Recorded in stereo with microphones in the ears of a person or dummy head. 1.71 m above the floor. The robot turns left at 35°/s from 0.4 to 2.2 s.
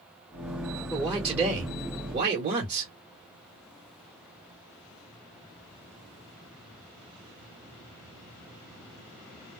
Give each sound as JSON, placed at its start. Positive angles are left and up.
{"t": 0.9, "sound": "a man speaking", "azimuth_deg": 5, "distance_m": 1.3}